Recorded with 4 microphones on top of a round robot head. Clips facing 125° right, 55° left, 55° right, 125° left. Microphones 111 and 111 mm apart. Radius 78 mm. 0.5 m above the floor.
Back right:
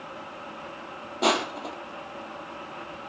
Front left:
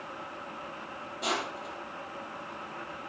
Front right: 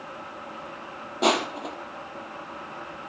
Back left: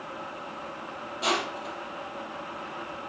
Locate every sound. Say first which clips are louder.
1.2 s crushing: back right 9 dB, front right 6 dB; 90° right, 3.5 m